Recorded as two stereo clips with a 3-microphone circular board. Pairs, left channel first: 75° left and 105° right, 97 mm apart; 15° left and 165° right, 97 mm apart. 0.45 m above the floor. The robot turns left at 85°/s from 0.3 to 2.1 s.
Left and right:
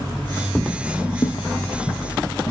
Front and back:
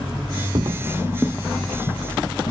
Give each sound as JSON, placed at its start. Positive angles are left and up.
{"t": 0.6, "sound": "footsteps", "azimuth_deg": 175, "distance_m": 0.7}